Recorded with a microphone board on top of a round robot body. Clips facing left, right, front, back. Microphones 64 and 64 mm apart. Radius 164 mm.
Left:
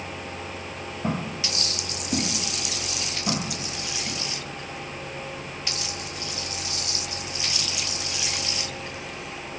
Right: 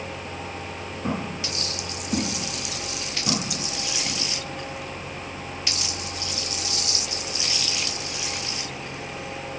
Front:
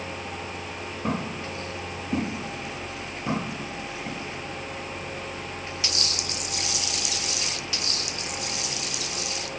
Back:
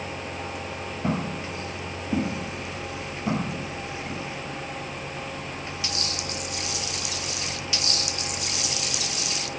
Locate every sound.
1.0 s footsteps: 125° left, 1.5 m; by 4.2 s 55° right, 1.3 m